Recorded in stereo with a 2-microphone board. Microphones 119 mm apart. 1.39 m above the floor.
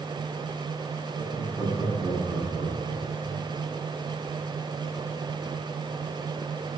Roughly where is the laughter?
Right.